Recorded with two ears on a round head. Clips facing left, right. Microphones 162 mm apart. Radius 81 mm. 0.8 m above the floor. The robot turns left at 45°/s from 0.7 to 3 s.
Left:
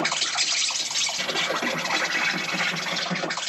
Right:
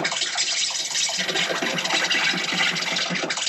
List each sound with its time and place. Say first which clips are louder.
0.0 s an insect: even; 15° right, 0.8 m; by 3.5 s 120° right, 0.8 m